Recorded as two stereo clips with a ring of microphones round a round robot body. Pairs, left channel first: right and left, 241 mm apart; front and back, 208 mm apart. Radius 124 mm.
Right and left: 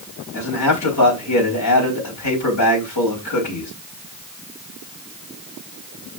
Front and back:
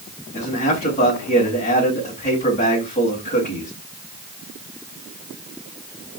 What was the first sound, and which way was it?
A man speaking, 65° right.